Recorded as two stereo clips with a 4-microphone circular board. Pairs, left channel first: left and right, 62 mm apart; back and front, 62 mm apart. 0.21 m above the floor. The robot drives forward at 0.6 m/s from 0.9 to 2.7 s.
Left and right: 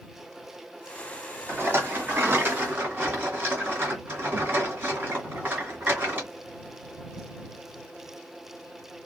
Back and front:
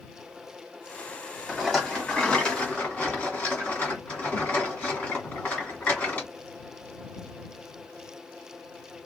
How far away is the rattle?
About 1.3 m.